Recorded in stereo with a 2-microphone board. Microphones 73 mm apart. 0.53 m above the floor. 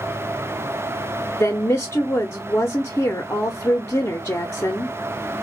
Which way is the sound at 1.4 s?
35° left (ahead or behind).